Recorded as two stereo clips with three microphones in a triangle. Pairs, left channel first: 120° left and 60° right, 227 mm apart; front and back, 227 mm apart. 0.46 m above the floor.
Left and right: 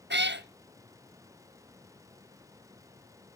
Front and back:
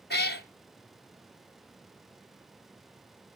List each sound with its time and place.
0.1 s a cat meowing: 35° right, 0.7 m